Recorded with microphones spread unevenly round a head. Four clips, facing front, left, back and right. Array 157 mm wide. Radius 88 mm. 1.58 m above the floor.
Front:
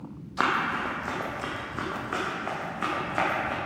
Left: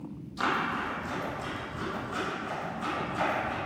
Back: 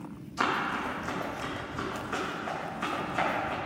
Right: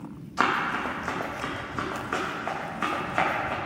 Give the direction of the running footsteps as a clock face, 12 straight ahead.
2 o'clock.